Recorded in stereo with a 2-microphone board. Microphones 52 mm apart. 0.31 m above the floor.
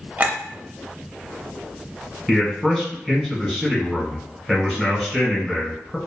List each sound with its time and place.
0.2 s a clink: 30° right (ahead or behind), 0.6 m
2.3 s a man speaking: 5° left (ahead or behind), 1.2 m